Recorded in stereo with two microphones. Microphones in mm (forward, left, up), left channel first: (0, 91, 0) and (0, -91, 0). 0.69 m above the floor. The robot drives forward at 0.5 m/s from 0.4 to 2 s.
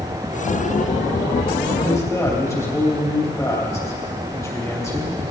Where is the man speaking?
15° left (ahead or behind), 3.5 m.